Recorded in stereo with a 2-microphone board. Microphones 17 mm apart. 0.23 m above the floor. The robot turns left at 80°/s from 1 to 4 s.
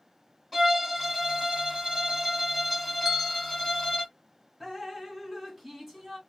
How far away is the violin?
About 1.4 m.